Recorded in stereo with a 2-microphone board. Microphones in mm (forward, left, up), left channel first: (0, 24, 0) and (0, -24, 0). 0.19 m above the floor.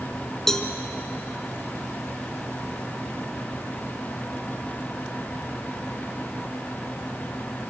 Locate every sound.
0.5 s a cowbell: 10° left (ahead or behind), 1.3 m